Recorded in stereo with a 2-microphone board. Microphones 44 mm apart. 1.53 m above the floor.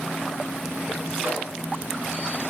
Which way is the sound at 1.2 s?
75° right (ahead or behind).